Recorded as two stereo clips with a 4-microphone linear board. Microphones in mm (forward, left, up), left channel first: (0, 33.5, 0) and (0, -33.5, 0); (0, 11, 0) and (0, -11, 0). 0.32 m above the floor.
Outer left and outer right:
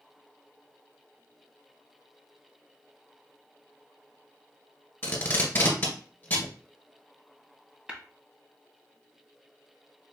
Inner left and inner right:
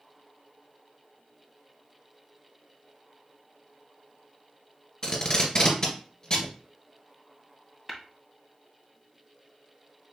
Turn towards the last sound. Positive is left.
turn(degrees=-15)  # may be behind; listen again after turning